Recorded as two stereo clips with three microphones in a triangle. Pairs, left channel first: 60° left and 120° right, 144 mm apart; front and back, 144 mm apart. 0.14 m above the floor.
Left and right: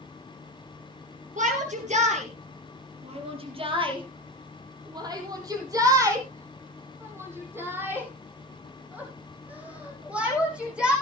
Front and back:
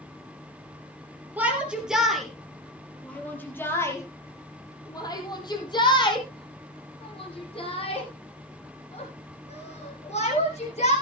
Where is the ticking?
I don't hear ticking.